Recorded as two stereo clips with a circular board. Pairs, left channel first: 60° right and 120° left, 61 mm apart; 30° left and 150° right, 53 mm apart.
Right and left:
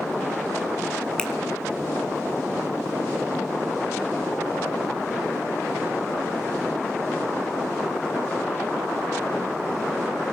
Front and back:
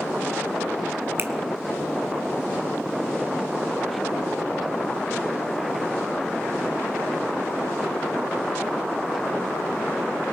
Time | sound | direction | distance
1.2 | a finger snap | 130° right | 2 m